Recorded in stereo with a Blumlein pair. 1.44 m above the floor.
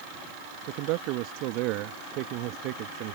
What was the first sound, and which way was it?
A man speaking, 40° right.